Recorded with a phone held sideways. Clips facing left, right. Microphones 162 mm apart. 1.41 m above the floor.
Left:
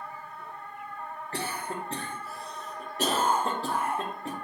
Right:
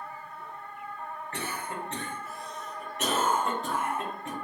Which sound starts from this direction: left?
A cough, at 1.3 s.